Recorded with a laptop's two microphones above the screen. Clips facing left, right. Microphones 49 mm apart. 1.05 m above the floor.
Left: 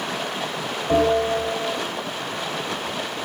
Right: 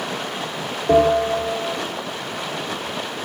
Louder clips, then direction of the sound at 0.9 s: Right 3 dB; 70° right (ahead or behind).